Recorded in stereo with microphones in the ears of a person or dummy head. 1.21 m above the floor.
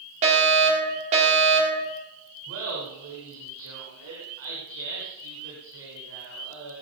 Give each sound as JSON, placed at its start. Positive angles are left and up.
{"t": 0.2, "sound": "a fire alarm", "side_deg": -40, "distance_m": 5.5}
{"t": 2.5, "sound": "laughter", "side_deg": -75, "distance_m": 4.0}